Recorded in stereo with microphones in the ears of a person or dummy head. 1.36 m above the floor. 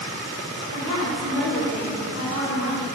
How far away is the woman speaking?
About 5 m.